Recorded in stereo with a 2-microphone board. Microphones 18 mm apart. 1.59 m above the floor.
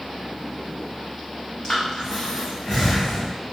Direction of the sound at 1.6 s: 40° left (ahead or behind).